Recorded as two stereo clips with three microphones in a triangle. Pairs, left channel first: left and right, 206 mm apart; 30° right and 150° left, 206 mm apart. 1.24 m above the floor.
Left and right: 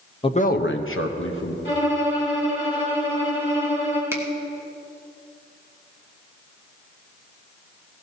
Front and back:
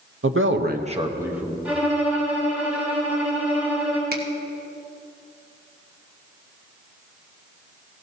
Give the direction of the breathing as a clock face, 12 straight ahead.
I don't hear breathing.